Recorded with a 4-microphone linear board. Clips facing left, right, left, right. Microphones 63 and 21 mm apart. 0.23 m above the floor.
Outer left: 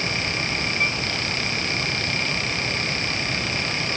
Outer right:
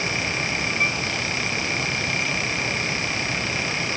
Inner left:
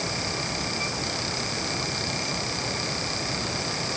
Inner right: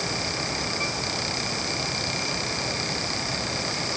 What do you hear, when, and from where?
Only background noise.